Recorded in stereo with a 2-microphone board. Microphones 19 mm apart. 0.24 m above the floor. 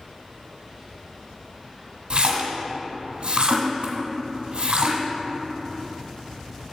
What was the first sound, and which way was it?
A splash, 55° right (ahead or behind).